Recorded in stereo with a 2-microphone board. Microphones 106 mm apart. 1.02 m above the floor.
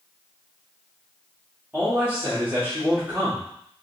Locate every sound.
1.7 s a man speaking: 20° right (ahead or behind), 1.6 m